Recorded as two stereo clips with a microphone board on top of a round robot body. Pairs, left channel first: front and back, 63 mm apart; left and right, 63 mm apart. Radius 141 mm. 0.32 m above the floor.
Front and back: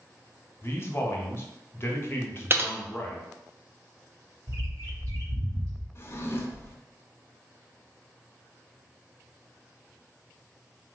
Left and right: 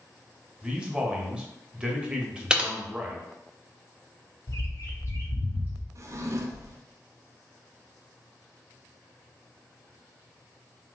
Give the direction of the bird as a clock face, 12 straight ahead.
7 o'clock.